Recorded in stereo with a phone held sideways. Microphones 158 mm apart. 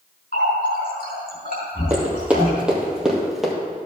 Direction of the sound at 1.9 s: 10° right (ahead or behind).